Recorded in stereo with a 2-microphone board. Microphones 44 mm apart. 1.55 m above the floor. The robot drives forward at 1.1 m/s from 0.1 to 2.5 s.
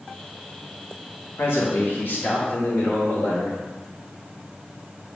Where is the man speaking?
65° left (ahead or behind), 1.7 m; by 3.6 s 40° left (ahead or behind), 2.5 m.